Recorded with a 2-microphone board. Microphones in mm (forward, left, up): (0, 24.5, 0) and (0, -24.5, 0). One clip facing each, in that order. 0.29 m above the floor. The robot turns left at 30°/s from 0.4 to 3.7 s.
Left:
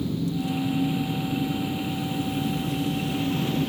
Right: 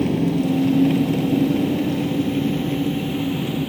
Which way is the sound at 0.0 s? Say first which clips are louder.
Right 8 dB; 70° right.